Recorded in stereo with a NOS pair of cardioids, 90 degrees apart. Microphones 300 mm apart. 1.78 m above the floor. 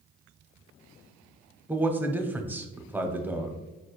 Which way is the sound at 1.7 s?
5° right.